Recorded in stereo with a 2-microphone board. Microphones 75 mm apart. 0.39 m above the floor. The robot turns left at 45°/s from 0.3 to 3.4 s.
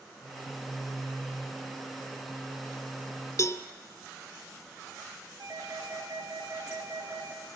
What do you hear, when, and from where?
3.4 s a cowbell: 45° left (ahead or behind), 0.6 m
5.4 s a doorbell: 50° right (ahead or behind), 4 m